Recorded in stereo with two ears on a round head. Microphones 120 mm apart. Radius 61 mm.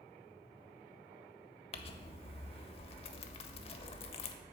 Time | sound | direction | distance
1.7 | crumpling | 45° left (ahead or behind) | 0.7 m